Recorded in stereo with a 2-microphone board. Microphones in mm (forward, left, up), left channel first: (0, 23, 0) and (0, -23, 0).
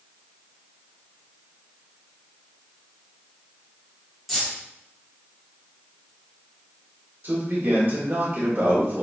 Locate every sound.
4.3 s keys jangling: 5° right (ahead or behind), 1.4 m
7.2 s a man speaking: 45° right (ahead or behind), 1.1 m